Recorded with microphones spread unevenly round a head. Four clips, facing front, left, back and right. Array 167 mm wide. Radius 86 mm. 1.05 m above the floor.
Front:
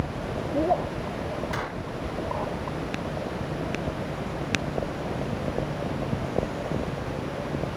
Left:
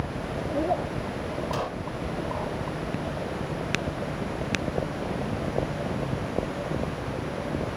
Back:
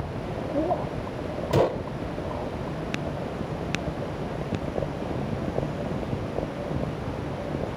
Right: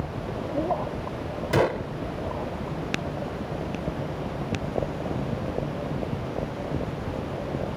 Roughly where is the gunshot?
Behind right.